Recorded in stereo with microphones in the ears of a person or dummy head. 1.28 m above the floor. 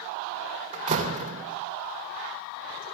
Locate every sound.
0.7 s a door slam: 30° right (ahead or behind), 2.5 m